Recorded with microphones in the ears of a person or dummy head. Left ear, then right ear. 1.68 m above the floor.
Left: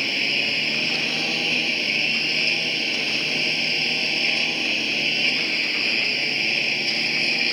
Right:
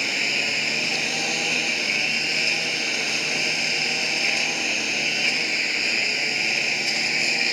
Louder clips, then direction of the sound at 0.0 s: Left 1 dB; 45° right (ahead or behind).